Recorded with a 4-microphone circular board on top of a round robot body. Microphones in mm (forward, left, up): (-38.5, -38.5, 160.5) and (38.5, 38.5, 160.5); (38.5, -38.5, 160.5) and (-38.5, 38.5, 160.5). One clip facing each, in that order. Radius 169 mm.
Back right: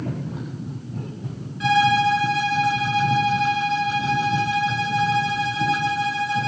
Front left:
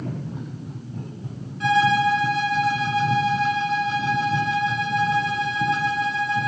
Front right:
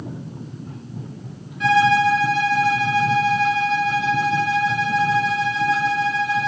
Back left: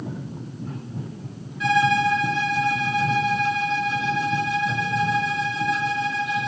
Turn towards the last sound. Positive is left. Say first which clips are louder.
# back right 1 dB, front right 4 dB
turn(degrees=-5)